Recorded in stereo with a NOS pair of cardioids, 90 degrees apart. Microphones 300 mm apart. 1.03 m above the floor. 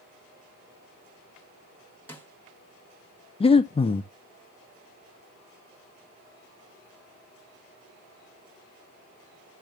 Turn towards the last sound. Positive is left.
turn(degrees=20)